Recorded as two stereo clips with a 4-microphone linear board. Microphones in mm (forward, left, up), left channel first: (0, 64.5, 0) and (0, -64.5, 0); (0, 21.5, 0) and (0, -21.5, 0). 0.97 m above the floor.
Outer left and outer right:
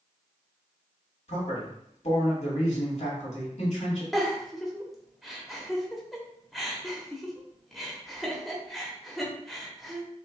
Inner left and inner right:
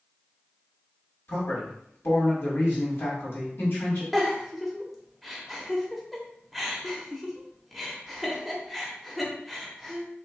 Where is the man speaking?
65° left (ahead or behind), 2 m.